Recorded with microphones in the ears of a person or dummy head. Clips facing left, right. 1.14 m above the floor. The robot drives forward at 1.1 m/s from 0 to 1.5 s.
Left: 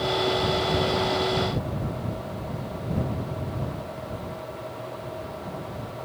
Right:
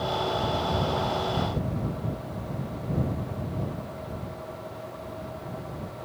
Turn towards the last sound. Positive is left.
No sound to turn to.